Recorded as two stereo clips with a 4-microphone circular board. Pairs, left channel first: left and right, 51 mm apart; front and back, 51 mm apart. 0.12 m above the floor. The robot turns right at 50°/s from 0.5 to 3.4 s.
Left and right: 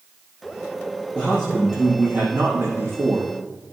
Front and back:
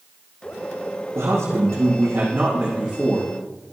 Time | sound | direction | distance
1.1 | a man speaking | 170° left | 3.5 m